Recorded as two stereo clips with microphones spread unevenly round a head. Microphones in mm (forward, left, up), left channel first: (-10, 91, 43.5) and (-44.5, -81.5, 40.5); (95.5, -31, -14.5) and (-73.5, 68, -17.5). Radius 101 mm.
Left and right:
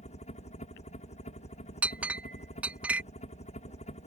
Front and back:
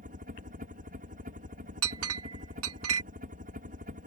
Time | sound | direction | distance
0.0 | a helicopter | 115° left | ?
1.8 | a clink | 175° left | ?